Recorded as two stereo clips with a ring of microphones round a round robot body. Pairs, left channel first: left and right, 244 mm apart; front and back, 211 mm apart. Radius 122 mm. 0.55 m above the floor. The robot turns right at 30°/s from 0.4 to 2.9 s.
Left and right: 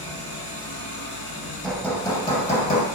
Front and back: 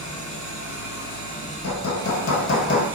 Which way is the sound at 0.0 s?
25° left.